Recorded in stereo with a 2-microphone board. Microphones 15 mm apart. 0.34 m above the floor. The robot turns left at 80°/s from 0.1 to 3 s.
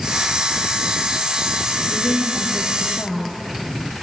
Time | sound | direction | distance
1.9 | a woman speaking | 130° left | 6 m